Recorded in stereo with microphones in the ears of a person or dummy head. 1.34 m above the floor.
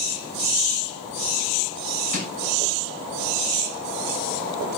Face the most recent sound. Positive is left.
turn(degrees=75)  # may be behind; listen again after turning